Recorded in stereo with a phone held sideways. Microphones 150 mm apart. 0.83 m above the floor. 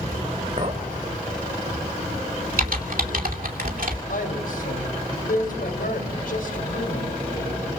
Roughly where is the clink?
Right.